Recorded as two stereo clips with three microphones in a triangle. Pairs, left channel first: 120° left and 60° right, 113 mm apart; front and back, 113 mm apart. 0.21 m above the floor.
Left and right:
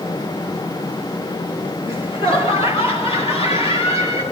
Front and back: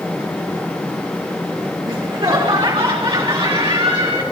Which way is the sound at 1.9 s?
150° left.